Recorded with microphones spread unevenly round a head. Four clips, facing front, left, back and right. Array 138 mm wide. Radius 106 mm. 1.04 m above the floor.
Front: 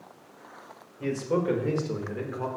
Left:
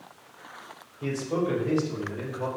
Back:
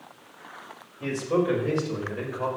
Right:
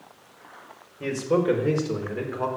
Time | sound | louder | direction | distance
1.0 | a man speaking | right 5 dB, back 2 dB | 85° right | 5 m